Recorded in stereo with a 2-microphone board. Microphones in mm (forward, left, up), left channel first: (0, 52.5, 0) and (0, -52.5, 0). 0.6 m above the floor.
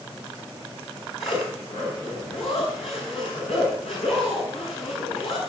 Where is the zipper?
75° left (ahead or behind), 9 m.